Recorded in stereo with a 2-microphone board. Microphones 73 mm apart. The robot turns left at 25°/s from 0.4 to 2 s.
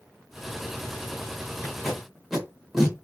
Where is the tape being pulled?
Centre (ahead or behind), 1.0 m; by 3.0 s 5° right (ahead or behind), 1.0 m.